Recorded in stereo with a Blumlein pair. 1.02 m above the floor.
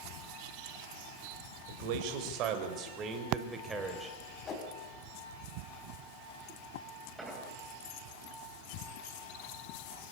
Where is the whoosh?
25° left, 4 m.